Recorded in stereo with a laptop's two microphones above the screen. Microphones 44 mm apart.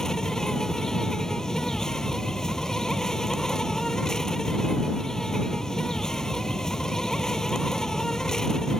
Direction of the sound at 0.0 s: 10° left (ahead or behind).